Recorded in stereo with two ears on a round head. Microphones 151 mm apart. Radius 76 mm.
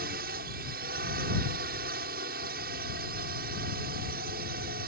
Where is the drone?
55° right (ahead or behind).